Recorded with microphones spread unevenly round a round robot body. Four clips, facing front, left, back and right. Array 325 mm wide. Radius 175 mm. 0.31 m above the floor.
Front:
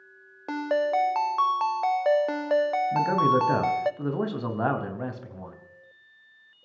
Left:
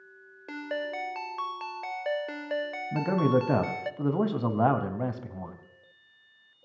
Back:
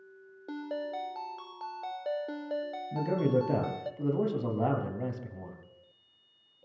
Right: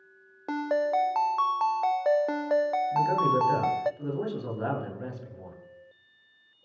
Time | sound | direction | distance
0.5 | a ringtone | 10° right | 0.6 m
2.9 | a man speaking | 75° left | 2.5 m